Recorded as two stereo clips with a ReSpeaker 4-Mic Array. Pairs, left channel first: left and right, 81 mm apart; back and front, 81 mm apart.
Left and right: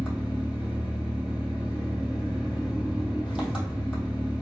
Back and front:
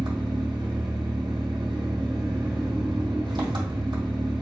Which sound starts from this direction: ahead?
An engine running, at 0.0 s.